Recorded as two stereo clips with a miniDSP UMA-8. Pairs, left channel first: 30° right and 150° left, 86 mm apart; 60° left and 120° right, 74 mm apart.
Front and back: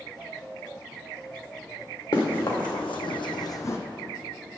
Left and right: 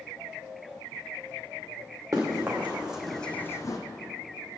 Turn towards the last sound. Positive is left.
turn(degrees=30)